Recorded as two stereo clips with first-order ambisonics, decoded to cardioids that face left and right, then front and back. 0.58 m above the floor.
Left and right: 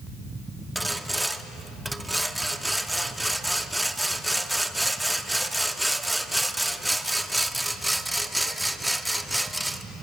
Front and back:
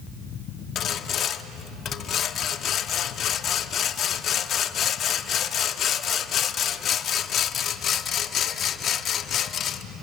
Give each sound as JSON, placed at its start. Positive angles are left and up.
{"t": 0.8, "sound": "sawing", "azimuth_deg": -5, "distance_m": 0.7}